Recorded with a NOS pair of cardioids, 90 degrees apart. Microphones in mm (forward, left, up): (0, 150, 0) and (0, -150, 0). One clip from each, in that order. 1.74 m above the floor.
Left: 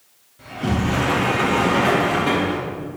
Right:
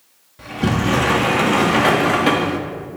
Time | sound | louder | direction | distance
0.4 | a sliding door | right 4 dB | 45° right | 0.9 m